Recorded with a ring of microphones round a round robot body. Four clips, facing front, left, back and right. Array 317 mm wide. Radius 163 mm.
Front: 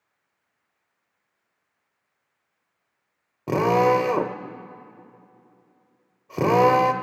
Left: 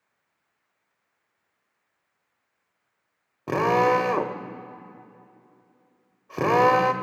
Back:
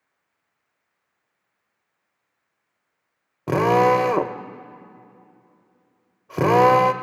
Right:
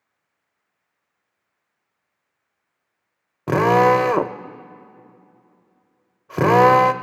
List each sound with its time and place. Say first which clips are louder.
3.5 s a drill: right 6 dB, back 2 dB; 110° right, 0.7 m